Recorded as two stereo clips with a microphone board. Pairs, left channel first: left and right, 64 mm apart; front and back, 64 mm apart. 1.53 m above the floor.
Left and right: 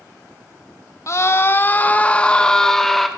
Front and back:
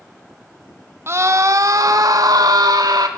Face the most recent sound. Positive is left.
turn(degrees=175)